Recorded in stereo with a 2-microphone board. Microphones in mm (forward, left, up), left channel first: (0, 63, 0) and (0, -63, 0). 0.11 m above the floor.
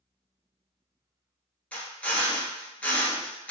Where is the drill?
10° left (ahead or behind), 0.9 m.